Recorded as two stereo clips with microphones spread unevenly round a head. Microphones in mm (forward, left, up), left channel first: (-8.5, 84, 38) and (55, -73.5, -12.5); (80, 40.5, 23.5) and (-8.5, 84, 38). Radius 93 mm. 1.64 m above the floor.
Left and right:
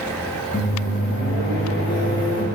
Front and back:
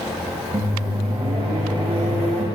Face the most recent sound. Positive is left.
turn(degrees=-120)